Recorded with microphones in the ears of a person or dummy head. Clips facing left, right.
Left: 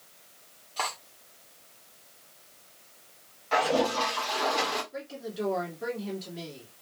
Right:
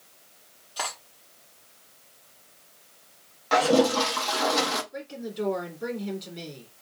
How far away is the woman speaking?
About 2.5 m.